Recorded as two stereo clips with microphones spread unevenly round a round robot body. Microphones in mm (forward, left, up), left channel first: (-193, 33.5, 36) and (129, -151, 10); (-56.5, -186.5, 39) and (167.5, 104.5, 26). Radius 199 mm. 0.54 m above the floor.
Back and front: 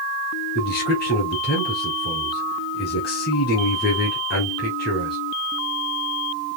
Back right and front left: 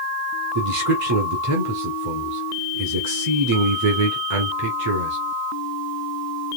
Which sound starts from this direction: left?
A man speaking, at 0.6 s.